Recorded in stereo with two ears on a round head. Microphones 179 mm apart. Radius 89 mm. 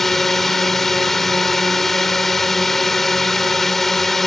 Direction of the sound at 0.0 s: Centre (ahead or behind).